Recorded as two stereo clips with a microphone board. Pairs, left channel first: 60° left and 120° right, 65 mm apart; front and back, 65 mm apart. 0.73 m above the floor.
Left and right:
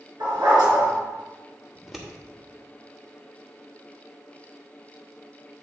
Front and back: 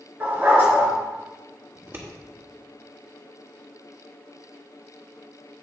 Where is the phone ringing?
I don't hear a phone ringing.